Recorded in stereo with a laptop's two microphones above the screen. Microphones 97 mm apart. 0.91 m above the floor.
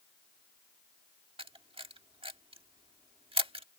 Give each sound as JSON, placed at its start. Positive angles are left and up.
{"t": 1.4, "sound": "a camera shutter", "side_deg": -75}